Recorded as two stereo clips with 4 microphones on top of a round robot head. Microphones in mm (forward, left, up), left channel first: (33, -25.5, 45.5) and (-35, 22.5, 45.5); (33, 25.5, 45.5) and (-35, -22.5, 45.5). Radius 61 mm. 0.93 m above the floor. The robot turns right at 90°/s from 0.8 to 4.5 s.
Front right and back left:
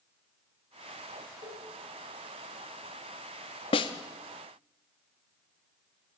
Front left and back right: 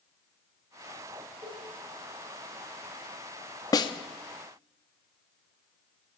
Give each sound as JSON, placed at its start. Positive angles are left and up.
{"t": 1.4, "sound": "a cowbell", "azimuth_deg": 160, "distance_m": 8.0}
{"t": 3.7, "sound": "a snare drum", "azimuth_deg": -15, "distance_m": 0.8}